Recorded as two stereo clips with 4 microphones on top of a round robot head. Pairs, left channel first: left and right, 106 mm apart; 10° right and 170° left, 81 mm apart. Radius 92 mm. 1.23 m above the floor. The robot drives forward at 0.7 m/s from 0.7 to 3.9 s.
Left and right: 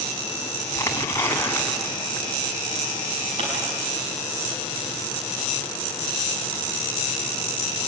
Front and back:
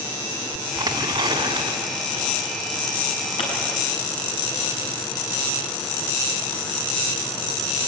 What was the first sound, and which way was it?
Tearing paper, 150° left.